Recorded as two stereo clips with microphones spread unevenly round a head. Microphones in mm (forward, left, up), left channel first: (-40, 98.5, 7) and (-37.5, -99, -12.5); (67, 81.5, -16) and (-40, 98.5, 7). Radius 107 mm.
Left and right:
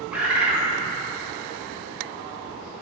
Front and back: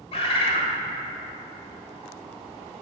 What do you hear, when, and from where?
0.1 s a bird: straight ahead, 0.8 m